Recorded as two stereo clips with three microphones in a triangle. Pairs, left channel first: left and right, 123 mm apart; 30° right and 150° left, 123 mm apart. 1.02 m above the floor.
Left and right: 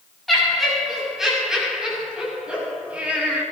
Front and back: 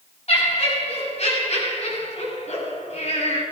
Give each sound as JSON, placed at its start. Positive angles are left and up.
{"t": 0.3, "sound": "laughter", "azimuth_deg": 0, "distance_m": 8.0}